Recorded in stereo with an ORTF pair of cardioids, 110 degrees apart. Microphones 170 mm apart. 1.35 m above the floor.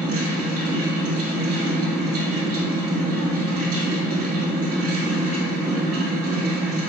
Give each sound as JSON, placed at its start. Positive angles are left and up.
{"t": 0.0, "sound": "a fan", "azimuth_deg": -60, "distance_m": 1.8}